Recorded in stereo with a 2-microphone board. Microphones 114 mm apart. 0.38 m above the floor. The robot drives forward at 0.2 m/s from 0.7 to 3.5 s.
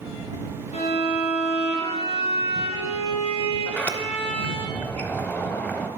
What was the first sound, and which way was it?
A violin, 80° left.